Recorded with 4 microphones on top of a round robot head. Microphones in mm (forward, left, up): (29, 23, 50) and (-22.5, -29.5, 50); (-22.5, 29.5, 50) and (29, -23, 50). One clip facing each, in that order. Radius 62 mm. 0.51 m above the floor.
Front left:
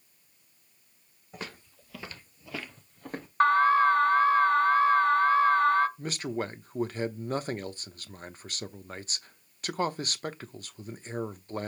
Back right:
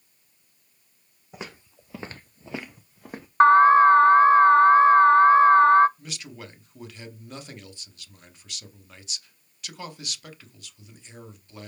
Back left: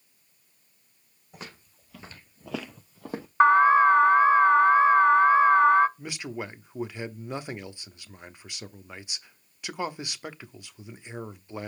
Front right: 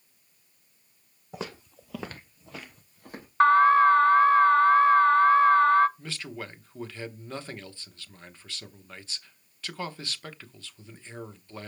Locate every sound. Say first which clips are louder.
1.3 s footsteps: back right 2 dB, front right 7 dB; 60° right, 1.5 m; by 3.3 s 135° left, 1.6 m
3.4 s an alarm: back right 7 dB, even; 165° right, 0.6 m
6.0 s a man speaking: front left 9 dB, back left 3 dB; 65° left, 0.8 m